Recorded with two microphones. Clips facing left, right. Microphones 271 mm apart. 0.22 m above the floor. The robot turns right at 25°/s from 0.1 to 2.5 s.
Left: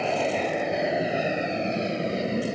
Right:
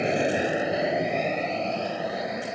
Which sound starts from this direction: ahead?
An aircraft, at 0.0 s.